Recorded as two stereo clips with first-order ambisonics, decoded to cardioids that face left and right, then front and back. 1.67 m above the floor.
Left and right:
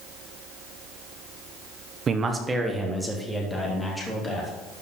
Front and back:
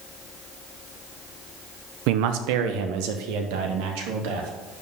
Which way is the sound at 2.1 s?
155° right.